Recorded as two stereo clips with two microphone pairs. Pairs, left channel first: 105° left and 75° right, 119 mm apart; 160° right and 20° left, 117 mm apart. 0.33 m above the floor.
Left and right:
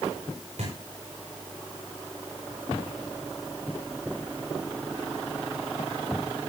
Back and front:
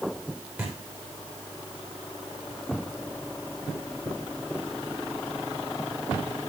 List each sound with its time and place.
0.6 s a thud: 60° right, 9 m